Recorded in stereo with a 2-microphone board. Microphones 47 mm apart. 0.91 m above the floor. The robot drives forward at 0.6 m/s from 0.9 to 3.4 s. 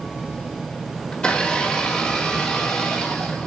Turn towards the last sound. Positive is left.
turn(degrees=10)  # may be behind; listen again after turning